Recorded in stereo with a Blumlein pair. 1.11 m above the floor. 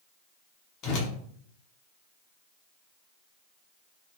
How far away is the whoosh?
About 0.8 m.